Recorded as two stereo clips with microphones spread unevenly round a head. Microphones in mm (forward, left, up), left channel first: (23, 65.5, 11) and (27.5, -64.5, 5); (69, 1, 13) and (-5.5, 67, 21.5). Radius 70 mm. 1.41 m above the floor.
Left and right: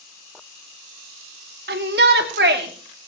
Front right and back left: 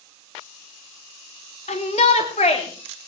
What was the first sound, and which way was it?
A shout, 90° right.